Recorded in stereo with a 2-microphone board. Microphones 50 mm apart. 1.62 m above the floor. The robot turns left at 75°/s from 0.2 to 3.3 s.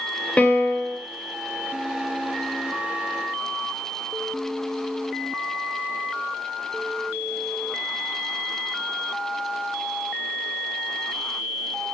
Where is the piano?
155° left, 0.6 m; by 1.0 s 105° left, 0.6 m.